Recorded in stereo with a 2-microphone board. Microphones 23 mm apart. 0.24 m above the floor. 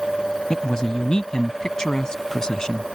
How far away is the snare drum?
I don't hear a snare drum.